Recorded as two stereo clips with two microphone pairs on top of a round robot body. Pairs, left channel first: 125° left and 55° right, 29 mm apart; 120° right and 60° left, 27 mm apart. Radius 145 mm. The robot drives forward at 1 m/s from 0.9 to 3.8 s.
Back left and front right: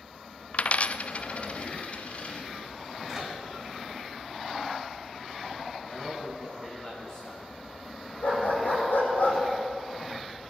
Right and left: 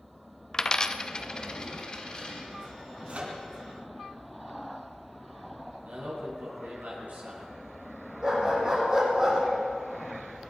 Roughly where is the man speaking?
Left.